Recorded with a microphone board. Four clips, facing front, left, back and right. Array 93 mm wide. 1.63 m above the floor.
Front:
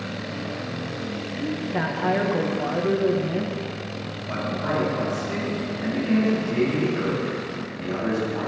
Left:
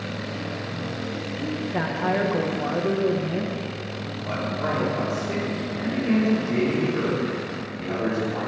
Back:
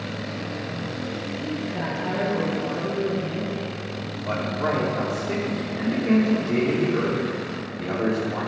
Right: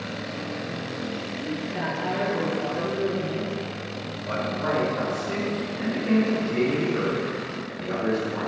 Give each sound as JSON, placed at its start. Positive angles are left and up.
{"t": 1.4, "sound": "a woman speaking", "azimuth_deg": 45, "distance_m": 1.7}
{"t": 4.2, "sound": "a man speaking", "azimuth_deg": 170, "distance_m": 4.5}